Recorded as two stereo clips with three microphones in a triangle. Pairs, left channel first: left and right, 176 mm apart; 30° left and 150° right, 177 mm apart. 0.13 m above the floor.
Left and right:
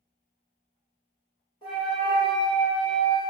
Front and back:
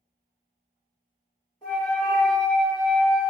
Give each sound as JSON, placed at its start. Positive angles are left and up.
{"t": 1.6, "sound": "a flute", "azimuth_deg": 55, "distance_m": 1.7}